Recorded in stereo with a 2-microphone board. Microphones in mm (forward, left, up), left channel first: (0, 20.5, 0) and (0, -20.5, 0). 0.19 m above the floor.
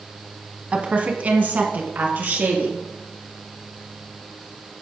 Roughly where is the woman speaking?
Right.